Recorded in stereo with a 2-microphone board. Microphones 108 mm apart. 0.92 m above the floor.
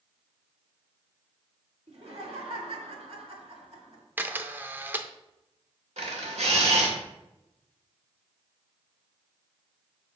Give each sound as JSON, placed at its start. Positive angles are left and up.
{"t": 1.9, "sound": "laughter", "side_deg": -65, "distance_m": 2.0}
{"t": 4.2, "sound": "a camera shutter", "side_deg": -15, "distance_m": 0.5}
{"t": 6.0, "sound": "a camera shutter", "side_deg": -80, "distance_m": 1.7}